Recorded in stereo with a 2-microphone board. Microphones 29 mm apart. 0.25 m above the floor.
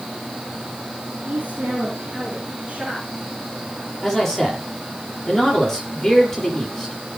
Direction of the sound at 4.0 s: 10° left (ahead or behind).